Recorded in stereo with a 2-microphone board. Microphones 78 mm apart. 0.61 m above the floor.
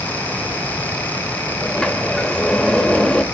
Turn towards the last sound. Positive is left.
turn(degrees=10)  # may be behind; listen again after turning